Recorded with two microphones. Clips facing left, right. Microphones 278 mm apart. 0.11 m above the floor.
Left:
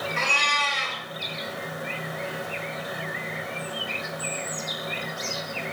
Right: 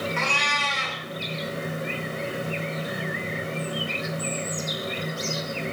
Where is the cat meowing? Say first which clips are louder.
Right 2 dB; 40° left (ahead or behind), 1.1 m.